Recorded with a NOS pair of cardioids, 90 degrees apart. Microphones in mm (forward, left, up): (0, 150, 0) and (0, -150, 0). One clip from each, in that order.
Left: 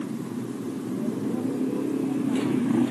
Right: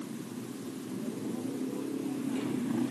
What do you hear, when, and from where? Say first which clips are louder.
0.0 s a motorcycle: left 8 dB; 55° left